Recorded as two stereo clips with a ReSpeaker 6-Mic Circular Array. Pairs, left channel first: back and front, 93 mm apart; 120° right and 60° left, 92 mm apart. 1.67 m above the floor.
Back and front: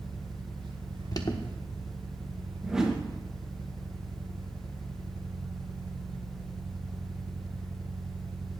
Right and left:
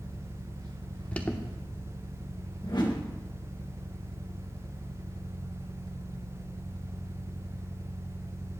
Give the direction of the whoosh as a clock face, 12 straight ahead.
3 o'clock.